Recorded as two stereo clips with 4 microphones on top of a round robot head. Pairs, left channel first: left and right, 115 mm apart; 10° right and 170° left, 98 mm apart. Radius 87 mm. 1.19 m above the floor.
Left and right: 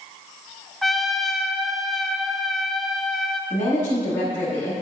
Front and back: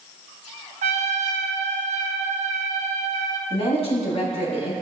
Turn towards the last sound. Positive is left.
turn(degrees=15)